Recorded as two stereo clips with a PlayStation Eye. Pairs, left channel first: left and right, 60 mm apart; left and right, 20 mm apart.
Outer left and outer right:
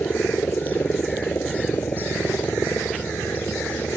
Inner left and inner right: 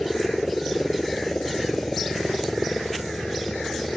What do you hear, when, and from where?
0.0 s a helicopter: 35° left (ahead or behind); by 4.0 s 30° left (ahead or behind)